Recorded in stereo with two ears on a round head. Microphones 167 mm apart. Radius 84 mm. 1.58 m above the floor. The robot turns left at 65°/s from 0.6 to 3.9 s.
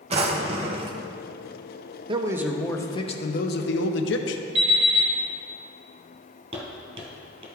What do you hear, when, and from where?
0.1 s a drawer: 30° right (ahead or behind), 0.8 m; by 1.0 s 25° right (ahead or behind), 0.8 m
2.1 s a man speaking: 150° right, 0.8 m; by 4.5 s 95° left, 0.8 m
4.5 s an alarm clock: 35° right (ahead or behind), 2 m
6.5 s footsteps: 35° right (ahead or behind), 2 m